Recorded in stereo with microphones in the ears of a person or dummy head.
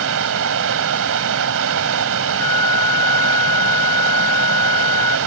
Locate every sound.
0.0 s running water: 75° right (ahead or behind)
2.4 s a flute: 15° left (ahead or behind)